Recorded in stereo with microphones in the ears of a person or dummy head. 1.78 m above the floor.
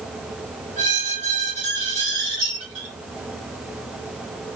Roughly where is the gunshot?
No gunshot in this recording.